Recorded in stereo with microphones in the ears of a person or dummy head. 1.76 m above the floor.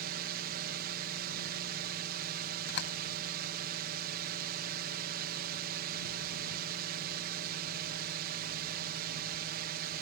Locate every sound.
0.0 s a drone: 50° right (ahead or behind)
2.7 s a door slam: 65° left (ahead or behind)